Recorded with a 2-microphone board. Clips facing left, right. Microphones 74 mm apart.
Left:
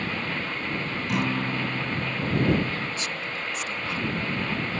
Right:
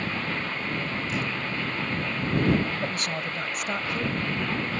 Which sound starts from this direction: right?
A woman speaking, at 2.8 s.